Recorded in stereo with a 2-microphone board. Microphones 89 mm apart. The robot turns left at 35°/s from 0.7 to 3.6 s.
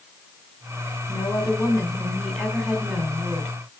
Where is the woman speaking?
55° left, 2.5 m; by 3.6 s 30° right, 2.5 m.